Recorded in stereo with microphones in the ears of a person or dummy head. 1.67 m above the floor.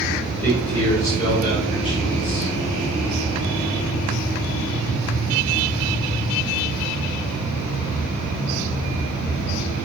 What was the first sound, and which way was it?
A man speaking, 5° left (ahead or behind).